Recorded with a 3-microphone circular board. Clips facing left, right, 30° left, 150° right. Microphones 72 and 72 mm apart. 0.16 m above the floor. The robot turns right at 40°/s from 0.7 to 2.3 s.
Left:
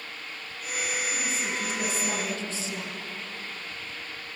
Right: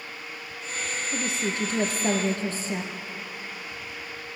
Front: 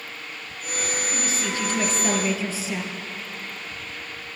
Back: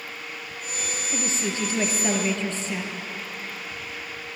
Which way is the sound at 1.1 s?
100° right.